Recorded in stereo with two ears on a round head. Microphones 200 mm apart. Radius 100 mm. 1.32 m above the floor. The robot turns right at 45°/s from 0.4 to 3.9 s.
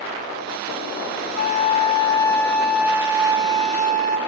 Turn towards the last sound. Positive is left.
turn(degrees=-125)